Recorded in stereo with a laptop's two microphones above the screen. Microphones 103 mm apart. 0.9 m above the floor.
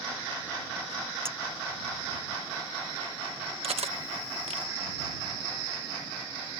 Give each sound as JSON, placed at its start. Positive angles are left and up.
{"t": 1.2, "sound": "a clink", "side_deg": -25}
{"t": 3.6, "sound": "cutlery clinking", "side_deg": -75}